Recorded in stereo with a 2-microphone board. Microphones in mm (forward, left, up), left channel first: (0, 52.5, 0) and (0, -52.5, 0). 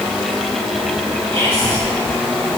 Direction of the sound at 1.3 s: 70° right (ahead or behind).